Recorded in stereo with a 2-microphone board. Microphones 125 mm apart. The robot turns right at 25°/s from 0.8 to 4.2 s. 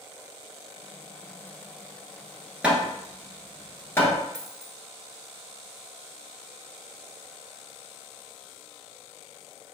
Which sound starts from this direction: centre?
Hammering, at 2.6 s.